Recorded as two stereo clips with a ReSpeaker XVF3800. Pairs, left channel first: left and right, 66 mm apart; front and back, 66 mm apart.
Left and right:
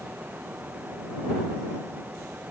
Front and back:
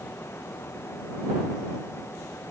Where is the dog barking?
I don't hear a dog barking.